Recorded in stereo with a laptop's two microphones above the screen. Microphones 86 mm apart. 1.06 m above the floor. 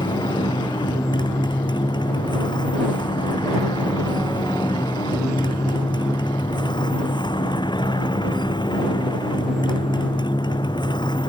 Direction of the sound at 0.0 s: 60° left (ahead or behind).